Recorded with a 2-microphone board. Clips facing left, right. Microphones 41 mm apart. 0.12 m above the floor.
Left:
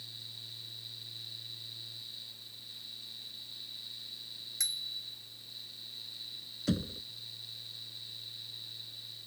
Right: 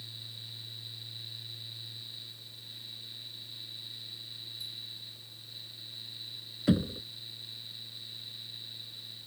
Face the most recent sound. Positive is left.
turn(degrees=-20)  # may be behind; listen again after turning